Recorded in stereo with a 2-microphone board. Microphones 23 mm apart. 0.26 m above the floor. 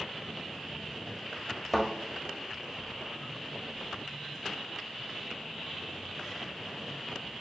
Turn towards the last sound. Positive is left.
turn(degrees=-5)  # may be behind; listen again after turning